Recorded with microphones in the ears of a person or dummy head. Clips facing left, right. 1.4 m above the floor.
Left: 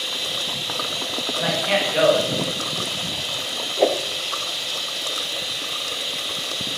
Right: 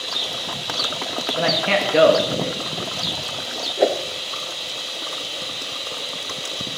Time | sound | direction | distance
0.0 | running water | 25° left (ahead or behind) | 2.5 m
1.4 | a man speaking | 55° right (ahead or behind) | 2 m
3.8 | a whoosh | 5° right (ahead or behind) | 0.6 m